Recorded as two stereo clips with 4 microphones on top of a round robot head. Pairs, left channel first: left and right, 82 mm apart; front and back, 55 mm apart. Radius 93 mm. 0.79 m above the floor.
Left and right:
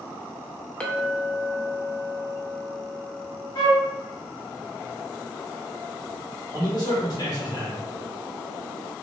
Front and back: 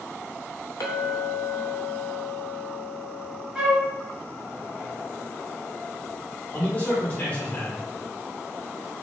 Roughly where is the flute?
Left.